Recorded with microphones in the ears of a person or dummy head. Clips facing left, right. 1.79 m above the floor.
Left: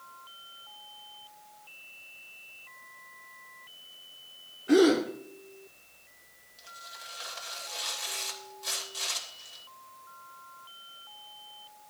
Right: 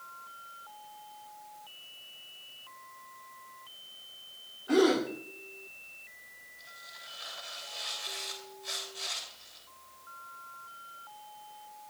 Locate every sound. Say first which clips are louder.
4.7 s a gasp: left 4 dB; 30° left (ahead or behind), 2.5 m
6.6 s tearing paper: left 4 dB; 70° left (ahead or behind), 2.5 m